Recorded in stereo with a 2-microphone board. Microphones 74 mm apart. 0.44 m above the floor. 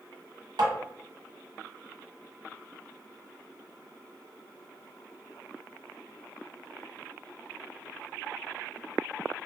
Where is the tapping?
75° right (ahead or behind), 1.1 m.